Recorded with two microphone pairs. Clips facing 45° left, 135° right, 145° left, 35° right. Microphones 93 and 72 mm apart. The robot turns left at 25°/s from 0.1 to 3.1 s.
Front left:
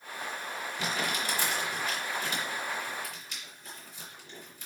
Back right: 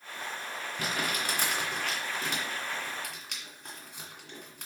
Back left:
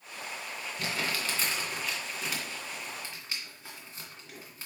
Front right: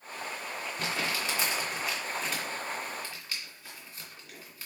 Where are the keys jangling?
No keys jangling in this recording.